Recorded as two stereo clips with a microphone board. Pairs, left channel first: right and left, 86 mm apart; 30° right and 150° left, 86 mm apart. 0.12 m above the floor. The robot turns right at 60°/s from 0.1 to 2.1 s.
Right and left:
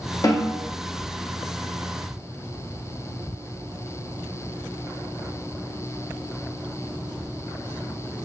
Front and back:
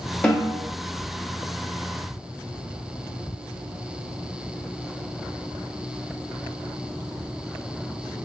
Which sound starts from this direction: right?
A snare drum, at 0.2 s.